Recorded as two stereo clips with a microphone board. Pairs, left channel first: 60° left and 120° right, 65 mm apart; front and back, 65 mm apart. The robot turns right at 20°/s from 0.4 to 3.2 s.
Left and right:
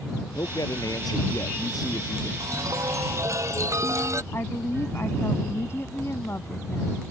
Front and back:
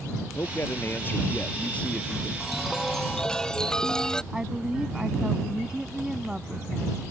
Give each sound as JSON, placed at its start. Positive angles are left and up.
{"t": 0.3, "sound": "a man speaking", "azimuth_deg": 45}
{"t": 2.4, "sound": "a chime", "azimuth_deg": -95}
{"t": 4.3, "sound": "a woman speaking", "azimuth_deg": 105}